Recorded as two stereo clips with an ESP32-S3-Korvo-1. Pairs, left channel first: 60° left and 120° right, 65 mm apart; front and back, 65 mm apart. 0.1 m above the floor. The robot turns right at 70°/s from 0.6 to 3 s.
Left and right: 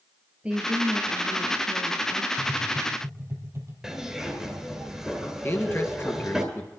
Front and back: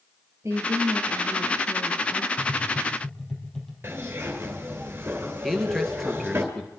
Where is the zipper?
160° left, 2 m.